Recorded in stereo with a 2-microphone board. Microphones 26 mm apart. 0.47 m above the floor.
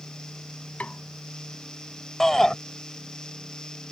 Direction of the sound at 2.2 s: 20° left (ahead or behind).